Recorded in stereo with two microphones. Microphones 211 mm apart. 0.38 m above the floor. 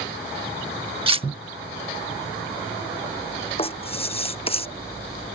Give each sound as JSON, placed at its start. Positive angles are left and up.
{"t": 1.1, "sound": "cutlery clinking", "side_deg": -25}
{"t": 3.6, "sound": "writing", "side_deg": 25}